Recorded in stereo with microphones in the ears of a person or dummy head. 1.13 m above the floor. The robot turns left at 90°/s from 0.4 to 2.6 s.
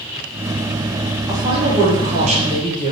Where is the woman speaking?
30° right, 0.7 m; by 2.9 s 145° right, 0.7 m.